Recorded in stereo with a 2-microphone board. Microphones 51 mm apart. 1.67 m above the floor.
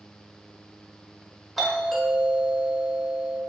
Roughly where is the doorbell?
Centre.